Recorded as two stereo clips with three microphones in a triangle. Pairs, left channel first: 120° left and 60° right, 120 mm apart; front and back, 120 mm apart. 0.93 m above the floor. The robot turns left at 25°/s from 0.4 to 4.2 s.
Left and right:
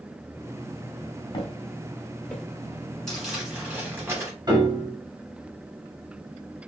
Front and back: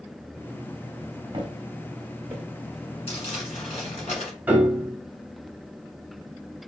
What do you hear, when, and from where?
1.3 s footsteps: 150° left, 1.2 m; by 2.4 s 165° right, 0.9 m
3.1 s crumpling: 35° left, 1.8 m; by 4.3 s 5° left, 1.8 m
4.5 s a piano: 105° right, 1.1 m